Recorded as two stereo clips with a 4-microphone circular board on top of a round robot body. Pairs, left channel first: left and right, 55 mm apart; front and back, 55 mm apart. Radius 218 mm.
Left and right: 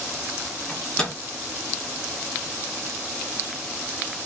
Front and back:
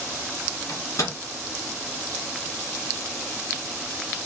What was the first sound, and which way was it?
A microwave, 15° left.